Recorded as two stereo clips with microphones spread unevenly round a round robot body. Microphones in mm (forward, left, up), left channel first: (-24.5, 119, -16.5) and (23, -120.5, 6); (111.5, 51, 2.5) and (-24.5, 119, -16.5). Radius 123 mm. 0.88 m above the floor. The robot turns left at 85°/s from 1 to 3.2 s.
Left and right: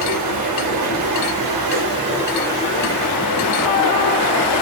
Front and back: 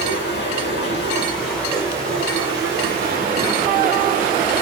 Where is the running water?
55° right, 1.8 m; by 4.6 s 120° left, 1.8 m.